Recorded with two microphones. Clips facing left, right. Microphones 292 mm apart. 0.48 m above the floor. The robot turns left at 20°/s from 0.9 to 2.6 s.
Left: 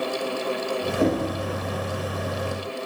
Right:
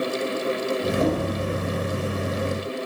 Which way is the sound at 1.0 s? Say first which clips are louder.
Left 3 dB; 25° left (ahead or behind).